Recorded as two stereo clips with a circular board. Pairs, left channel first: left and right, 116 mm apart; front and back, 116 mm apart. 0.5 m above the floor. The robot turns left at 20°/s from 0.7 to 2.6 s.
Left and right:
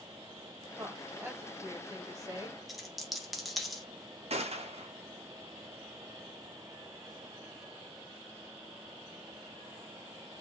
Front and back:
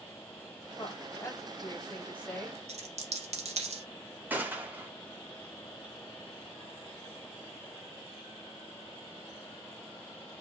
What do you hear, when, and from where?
0.8 s a woman speaking: 35° right, 1.1 m; by 2.6 s 70° right, 1.1 m
2.7 s a dropped coin: straight behind, 0.6 m
4.3 s a gunshot: 105° right, 0.6 m